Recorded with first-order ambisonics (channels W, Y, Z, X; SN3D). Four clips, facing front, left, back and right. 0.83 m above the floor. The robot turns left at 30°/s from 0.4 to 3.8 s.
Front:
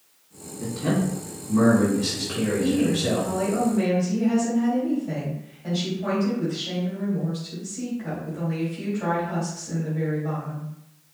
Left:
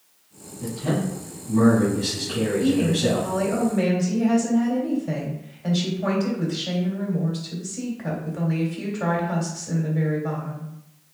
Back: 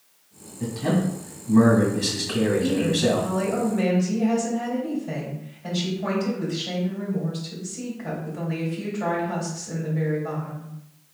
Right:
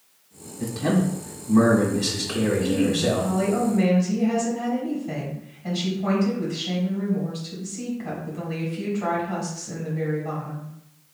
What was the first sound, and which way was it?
A man speaking, 115° right.